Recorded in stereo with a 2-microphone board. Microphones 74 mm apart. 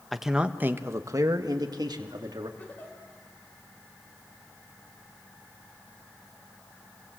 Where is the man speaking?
Centre (ahead or behind), 1.2 m; by 2.5 s 75° right (ahead or behind), 2.5 m.